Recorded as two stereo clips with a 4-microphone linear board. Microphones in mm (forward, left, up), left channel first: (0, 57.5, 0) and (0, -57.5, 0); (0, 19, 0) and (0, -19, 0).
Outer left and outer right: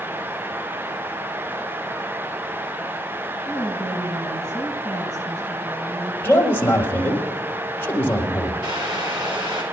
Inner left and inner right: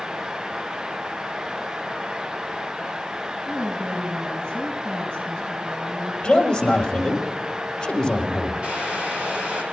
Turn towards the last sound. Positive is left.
turn(degrees=-45)  # may be behind; listen again after turning